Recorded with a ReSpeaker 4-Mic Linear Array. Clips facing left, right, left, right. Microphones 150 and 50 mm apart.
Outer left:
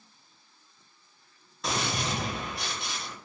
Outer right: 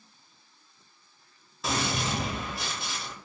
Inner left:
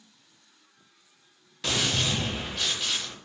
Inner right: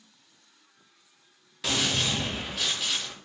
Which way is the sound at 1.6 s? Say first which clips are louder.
Outer right 1 dB, even; centre (ahead or behind).